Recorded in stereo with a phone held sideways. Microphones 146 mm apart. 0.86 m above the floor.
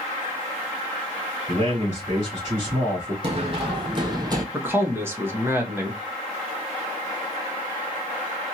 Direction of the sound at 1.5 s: 40° right (ahead or behind).